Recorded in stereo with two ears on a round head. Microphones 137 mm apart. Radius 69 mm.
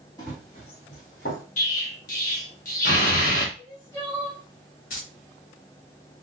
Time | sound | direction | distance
0.2 | running footsteps | 25° left (ahead or behind) | 1.9 m
1.6 | an explosion | 55° left (ahead or behind) | 1.1 m
3.6 | crying | 20° left (ahead or behind) | 1.8 m
4.9 | keys jangling | 60° left (ahead or behind) | 1.1 m